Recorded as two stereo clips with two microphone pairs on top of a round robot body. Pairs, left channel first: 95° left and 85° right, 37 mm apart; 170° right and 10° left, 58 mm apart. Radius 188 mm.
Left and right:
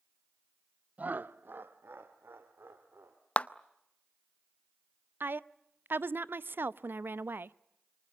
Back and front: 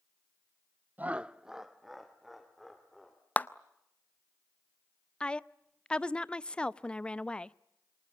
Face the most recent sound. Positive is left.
turn(degrees=-95)